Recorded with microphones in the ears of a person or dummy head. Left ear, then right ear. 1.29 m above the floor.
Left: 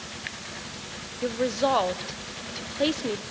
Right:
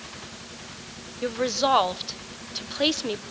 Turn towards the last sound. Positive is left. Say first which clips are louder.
# right 1 dB
turn(degrees=-25)  # may be behind; listen again after turning